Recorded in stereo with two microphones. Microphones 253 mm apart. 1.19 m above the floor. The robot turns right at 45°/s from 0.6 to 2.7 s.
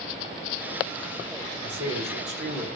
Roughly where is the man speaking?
Right.